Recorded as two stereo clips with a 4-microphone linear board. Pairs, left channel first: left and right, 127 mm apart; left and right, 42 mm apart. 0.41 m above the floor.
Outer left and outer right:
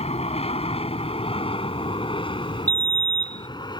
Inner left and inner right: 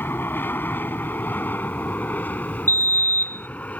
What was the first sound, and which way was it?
An aircraft, 55° left (ahead or behind).